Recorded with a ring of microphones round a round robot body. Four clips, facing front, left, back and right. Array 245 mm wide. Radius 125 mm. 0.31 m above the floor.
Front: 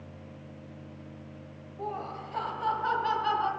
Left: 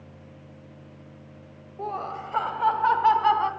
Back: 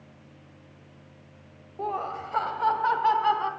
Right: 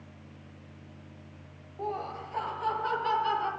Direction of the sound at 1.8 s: 150° left.